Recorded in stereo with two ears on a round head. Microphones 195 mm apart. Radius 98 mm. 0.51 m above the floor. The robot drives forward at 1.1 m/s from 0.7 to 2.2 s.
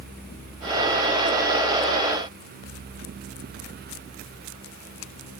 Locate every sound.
Only background noise.